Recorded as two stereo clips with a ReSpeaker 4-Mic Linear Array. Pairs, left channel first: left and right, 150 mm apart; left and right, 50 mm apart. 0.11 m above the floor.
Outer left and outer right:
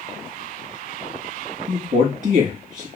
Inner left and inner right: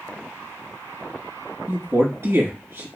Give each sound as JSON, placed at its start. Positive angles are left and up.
{"t": 1.7, "sound": "a man speaking", "side_deg": -60, "distance_m": 3.0}